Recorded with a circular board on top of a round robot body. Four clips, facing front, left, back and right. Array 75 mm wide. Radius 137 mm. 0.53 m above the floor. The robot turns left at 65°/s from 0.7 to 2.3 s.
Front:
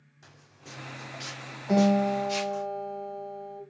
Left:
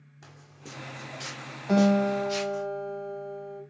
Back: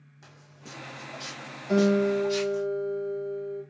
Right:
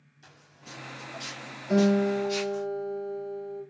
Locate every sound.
0.2 s footsteps: 115° left, 1.6 m; by 2.6 s 10° left, 3 m
1.7 s a guitar: 70° left, 1.4 m; by 3.6 s 30° left, 1.4 m